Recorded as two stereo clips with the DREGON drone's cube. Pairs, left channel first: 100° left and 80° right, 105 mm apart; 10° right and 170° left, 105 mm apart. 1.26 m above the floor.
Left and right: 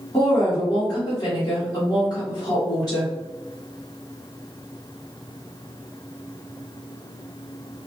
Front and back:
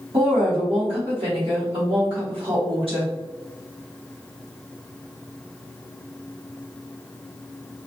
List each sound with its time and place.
0.1 s a woman speaking: 150° left, 0.9 m